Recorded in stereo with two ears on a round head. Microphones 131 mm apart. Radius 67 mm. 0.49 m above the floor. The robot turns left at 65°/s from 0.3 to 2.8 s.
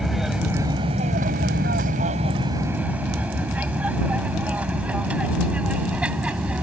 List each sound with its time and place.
0.0 s an aircraft: centre (ahead or behind); by 6.6 s 10° right (ahead or behind)